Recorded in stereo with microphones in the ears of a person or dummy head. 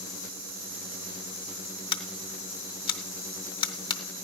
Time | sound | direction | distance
1.9 | scissors | 30° left (ahead or behind) | 0.6 m